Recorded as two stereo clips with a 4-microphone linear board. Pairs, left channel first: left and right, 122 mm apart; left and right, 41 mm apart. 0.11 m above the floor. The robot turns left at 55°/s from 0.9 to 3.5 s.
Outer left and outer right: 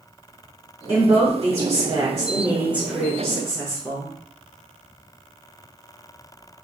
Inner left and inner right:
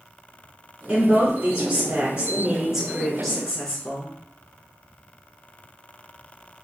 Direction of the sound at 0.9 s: 20° right (ahead or behind).